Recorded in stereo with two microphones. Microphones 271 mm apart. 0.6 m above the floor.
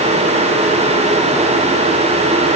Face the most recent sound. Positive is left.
No sound to turn to.